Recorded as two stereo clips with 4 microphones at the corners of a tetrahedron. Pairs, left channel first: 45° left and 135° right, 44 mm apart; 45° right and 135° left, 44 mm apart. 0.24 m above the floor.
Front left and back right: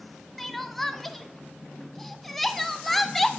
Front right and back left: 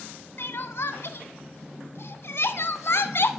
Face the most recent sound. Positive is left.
turn(degrees=-40)